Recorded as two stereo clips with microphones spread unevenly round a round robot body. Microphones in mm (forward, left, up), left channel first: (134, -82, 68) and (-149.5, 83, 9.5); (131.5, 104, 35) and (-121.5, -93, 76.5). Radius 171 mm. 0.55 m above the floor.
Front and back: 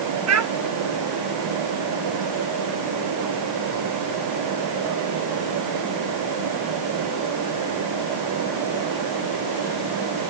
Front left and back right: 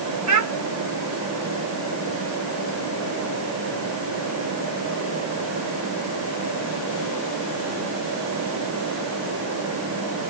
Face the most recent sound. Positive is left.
turn(degrees=180)